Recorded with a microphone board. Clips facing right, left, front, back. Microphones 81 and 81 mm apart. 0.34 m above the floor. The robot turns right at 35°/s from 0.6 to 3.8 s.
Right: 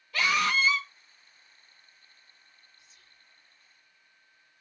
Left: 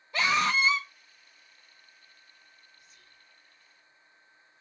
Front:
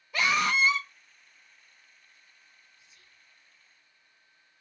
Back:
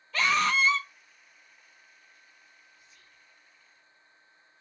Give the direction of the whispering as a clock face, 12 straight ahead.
10 o'clock.